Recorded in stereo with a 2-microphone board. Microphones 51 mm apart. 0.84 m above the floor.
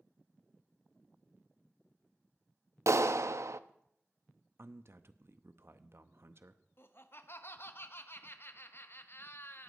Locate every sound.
2.9 s a clap: 75° right (ahead or behind), 0.5 m
4.6 s a man speaking: 55° right (ahead or behind), 0.7 m
6.8 s laughter: 50° left (ahead or behind), 1.1 m